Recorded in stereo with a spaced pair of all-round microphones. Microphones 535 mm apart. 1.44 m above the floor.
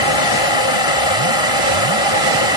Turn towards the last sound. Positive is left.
turn(degrees=70)  # may be behind; listen again after turning